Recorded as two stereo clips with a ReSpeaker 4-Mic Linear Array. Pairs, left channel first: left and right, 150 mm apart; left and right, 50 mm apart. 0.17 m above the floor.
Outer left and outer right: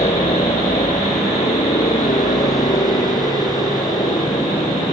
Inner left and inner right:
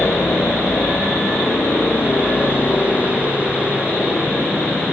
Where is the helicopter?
50° left (ahead or behind); by 4.9 s 45° left (ahead or behind).